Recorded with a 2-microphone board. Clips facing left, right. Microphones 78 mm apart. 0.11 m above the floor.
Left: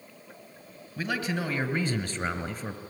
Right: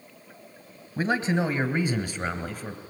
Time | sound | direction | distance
1.0 | a man speaking | 30° right (ahead or behind) | 1.3 m